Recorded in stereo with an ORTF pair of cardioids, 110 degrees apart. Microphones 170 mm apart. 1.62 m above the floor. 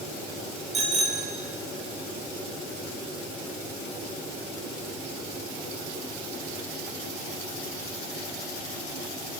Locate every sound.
0.7 s a bicycle bell: 40° right, 5.5 m